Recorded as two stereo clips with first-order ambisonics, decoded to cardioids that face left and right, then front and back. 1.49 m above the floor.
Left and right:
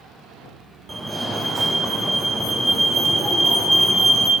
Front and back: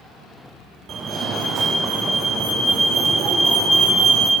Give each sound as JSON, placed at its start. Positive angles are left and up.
{"t": 0.9, "sound": "a fire alarm", "azimuth_deg": -160, "distance_m": 0.9}